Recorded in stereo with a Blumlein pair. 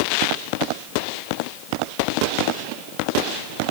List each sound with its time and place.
Only background noise.